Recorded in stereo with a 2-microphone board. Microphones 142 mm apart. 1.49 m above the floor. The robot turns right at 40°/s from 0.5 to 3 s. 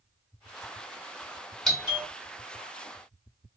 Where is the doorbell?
Centre (ahead or behind), 1.1 m; by 2.1 s 15° right (ahead or behind), 1.1 m.